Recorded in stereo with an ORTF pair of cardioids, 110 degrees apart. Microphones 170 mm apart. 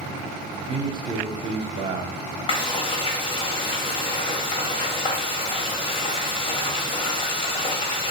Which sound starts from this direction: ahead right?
A man speaking, at 0.6 s.